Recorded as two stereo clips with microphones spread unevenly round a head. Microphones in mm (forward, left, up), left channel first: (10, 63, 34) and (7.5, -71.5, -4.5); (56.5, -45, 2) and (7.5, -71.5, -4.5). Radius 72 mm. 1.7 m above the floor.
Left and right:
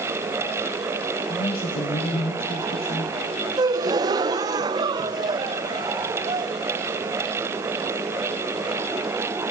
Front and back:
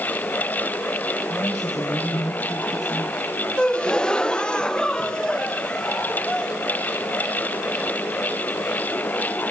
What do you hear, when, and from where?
1.3 s a woman speaking: 75° left, 2 m
3.6 s a gasp: 25° right, 0.8 m